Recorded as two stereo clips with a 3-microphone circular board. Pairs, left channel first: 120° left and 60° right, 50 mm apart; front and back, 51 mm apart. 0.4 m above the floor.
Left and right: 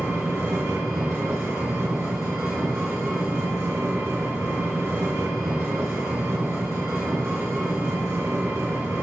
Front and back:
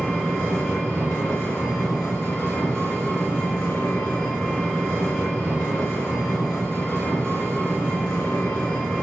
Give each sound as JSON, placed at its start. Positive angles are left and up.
{"t": 0.0, "sound": "an engine running", "azimuth_deg": -70, "distance_m": 3.0}